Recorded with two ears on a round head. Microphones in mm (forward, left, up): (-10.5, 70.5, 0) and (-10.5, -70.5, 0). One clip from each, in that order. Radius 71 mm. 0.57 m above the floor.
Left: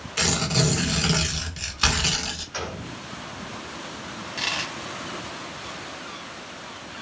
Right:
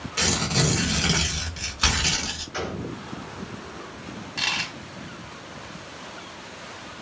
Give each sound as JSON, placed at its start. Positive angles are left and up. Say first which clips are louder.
{"t": 0.2, "sound": "tearing paper", "louder": "even", "side_deg": 15, "distance_m": 1.0}
{"t": 2.5, "sound": "a gunshot", "louder": "right 1 dB", "side_deg": 30, "distance_m": 1.9}
{"t": 4.4, "sound": "a dropped coin", "louder": "right 2 dB", "side_deg": 0, "distance_m": 0.9}